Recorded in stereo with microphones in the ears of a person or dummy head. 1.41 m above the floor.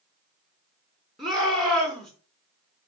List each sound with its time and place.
1.2 s a shout: centre (ahead or behind), 1.1 m